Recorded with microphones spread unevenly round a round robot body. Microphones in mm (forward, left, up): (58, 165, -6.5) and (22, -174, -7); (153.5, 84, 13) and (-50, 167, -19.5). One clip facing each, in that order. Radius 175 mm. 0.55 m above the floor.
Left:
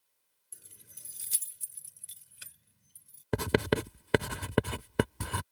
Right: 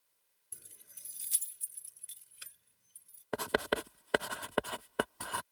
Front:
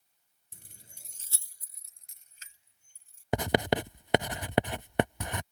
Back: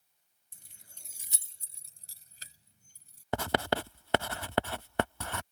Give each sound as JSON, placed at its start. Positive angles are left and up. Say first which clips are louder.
{"t": 0.5, "sound": "keys jangling", "louder": "left 3 dB, front 5 dB", "azimuth_deg": -25}
{"t": 3.3, "sound": "writing", "louder": "left 6 dB, front 4 dB", "azimuth_deg": 55}